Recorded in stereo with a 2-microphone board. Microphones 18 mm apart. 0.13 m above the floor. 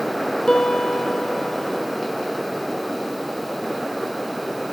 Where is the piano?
35° left (ahead or behind), 0.8 m.